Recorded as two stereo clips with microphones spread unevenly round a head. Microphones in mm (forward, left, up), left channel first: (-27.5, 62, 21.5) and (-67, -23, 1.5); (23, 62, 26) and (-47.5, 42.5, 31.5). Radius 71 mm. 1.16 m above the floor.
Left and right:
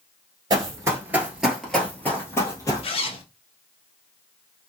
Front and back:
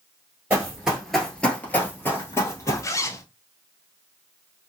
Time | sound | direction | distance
0.5 | running footsteps | 120° right | 1.2 m
2.8 | a zipper | 65° left | 0.6 m